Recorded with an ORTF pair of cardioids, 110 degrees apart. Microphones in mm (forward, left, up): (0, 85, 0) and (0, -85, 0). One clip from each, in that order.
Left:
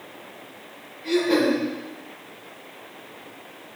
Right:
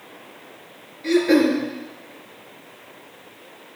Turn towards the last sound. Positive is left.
turn(degrees=-65)